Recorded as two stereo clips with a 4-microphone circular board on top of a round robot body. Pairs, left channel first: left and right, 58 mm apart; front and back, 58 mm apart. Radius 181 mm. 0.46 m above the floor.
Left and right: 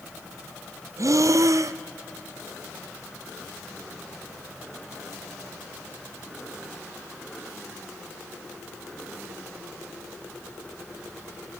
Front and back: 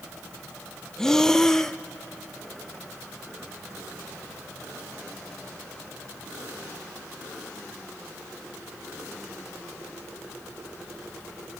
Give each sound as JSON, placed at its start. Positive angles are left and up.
{"t": 1.0, "sound": "breathing", "azimuth_deg": -80, "distance_m": 0.7}